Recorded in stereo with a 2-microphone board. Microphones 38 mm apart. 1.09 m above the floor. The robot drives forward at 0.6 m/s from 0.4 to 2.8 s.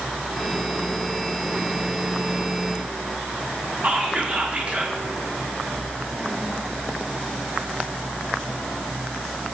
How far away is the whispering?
About 0.6 m.